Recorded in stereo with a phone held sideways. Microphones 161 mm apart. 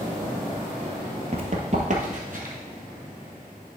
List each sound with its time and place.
1.3 s running footsteps: 40° right (ahead or behind), 1.2 m; by 2.5 s 60° right (ahead or behind), 1.8 m